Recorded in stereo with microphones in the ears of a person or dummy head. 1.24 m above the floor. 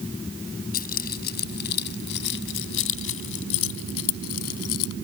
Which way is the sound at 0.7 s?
50° left (ahead or behind).